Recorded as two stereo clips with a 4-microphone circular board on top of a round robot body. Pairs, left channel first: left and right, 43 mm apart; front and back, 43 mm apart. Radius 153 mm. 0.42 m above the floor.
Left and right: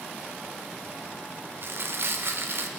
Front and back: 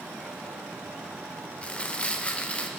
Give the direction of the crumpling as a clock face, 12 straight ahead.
2 o'clock.